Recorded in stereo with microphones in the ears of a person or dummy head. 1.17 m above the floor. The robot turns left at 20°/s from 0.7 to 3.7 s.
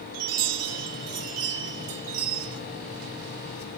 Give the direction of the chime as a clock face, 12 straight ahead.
3 o'clock.